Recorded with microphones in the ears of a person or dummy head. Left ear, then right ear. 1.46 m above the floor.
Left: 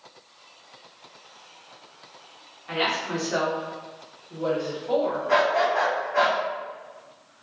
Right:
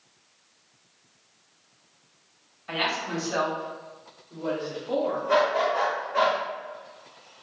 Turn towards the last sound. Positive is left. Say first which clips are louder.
# left 2 dB
turn(degrees=-15)  # may be behind; listen again after turning